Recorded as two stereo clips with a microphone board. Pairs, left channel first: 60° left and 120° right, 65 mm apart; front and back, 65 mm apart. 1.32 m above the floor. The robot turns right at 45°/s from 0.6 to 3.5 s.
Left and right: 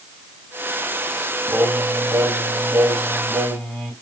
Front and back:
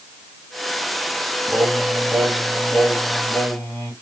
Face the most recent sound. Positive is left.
turn(degrees=-20)